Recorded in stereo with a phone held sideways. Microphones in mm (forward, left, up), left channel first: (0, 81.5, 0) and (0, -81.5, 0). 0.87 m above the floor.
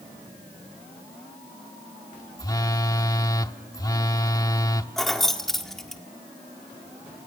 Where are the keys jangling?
Centre (ahead or behind), 1.7 m.